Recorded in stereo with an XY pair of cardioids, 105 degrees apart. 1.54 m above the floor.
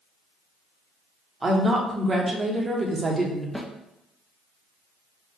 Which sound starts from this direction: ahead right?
A woman speaking, at 1.4 s.